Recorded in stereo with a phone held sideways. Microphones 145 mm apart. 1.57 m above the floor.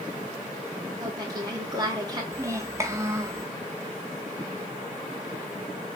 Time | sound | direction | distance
1.0 | a woman speaking | 25° right (ahead or behind) | 3 m
2.3 | a child speaking | 20° right (ahead or behind) | 1.3 m